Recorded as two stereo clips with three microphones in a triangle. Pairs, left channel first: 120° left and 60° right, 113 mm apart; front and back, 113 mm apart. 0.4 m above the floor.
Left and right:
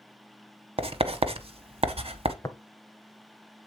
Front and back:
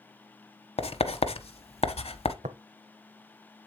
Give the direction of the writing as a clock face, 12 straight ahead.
1 o'clock.